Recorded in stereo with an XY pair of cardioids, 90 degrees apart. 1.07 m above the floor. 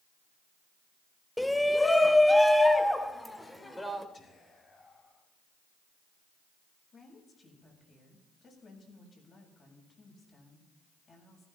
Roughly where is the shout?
Ahead.